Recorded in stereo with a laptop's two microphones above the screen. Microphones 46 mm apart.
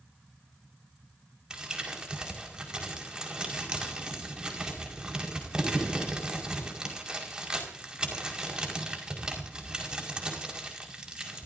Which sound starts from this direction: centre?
Crumpling, at 1.5 s.